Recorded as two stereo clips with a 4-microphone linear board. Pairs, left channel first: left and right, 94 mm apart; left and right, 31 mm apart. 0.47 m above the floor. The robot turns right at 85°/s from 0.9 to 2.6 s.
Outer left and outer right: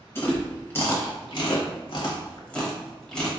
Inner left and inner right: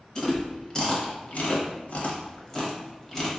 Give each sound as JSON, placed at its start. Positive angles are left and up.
{"t": 0.1, "sound": "chewing", "side_deg": 25, "distance_m": 0.8}